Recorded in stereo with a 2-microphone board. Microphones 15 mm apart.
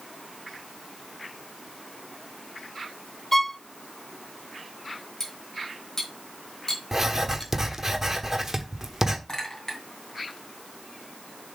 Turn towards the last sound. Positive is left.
turn(degrees=40)  # may be behind; listen again after turning